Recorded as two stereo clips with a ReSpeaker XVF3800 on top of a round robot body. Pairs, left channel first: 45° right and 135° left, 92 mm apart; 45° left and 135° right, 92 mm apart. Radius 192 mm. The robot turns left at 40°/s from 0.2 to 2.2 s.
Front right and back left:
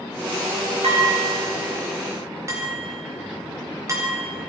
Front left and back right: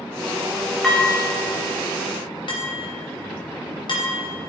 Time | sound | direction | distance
0.8 | dishes clattering | 130° left | 3.5 m